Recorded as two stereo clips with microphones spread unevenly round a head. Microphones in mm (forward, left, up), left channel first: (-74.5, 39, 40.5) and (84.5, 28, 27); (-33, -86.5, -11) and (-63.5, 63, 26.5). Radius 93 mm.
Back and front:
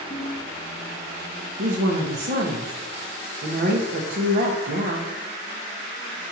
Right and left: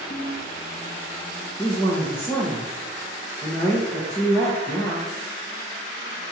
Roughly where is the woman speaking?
Ahead.